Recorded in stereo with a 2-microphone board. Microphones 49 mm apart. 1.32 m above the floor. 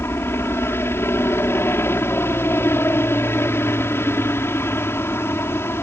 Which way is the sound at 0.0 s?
50° left (ahead or behind).